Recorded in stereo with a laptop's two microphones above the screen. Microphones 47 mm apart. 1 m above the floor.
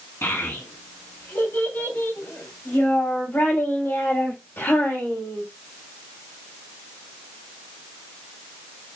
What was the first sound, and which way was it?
A child speaking, 75° left (ahead or behind).